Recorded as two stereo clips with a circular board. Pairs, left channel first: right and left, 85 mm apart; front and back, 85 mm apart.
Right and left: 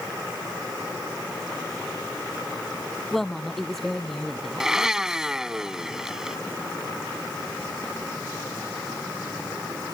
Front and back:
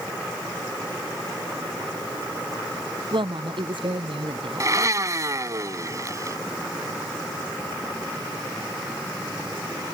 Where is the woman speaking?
175° right.